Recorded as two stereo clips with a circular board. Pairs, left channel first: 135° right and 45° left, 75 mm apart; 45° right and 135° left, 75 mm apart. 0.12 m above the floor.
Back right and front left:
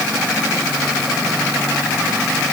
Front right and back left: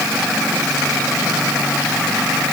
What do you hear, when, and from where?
Only background noise.